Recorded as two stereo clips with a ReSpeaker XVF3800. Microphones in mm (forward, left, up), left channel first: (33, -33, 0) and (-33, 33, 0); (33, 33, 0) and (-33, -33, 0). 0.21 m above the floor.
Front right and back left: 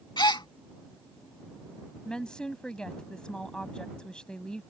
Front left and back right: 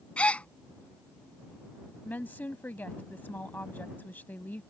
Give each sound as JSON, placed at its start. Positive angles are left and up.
{"t": 0.2, "sound": "a gasp", "azimuth_deg": -30}
{"t": 2.0, "sound": "a woman speaking", "azimuth_deg": 20}